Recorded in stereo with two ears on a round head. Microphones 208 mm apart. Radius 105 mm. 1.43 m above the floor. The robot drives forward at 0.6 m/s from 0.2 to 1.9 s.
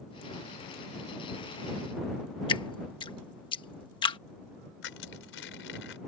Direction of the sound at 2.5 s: 20° left (ahead or behind).